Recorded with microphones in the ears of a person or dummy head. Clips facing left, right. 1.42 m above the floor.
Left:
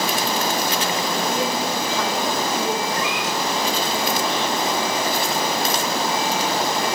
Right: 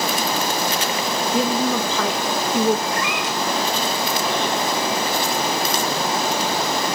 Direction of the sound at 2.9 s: 55° right (ahead or behind).